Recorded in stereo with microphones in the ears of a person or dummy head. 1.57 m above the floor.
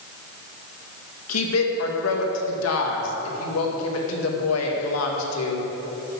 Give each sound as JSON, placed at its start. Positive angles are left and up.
{"t": 1.3, "sound": "a woman speaking", "side_deg": 85, "distance_m": 2.0}